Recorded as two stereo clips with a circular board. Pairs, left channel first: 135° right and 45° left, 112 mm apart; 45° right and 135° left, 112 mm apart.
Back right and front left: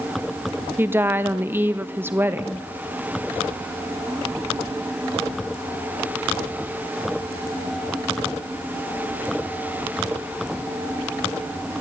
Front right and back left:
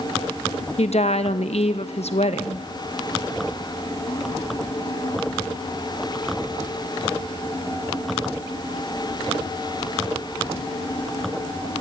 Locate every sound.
0.8 s a woman speaking: 25° right, 1.1 m